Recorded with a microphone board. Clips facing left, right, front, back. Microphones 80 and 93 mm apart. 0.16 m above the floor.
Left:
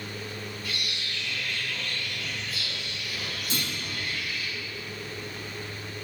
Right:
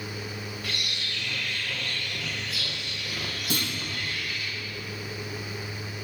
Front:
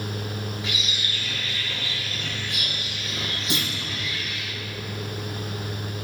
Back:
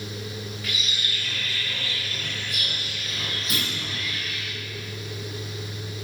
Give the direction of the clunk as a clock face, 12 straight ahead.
2 o'clock.